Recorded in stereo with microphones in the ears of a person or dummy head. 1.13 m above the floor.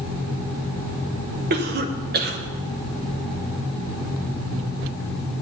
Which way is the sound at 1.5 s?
45° right (ahead or behind).